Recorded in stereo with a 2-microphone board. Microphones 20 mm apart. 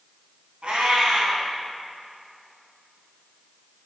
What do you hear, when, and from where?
0.6 s a cat meowing: 70° right (ahead or behind), 3 m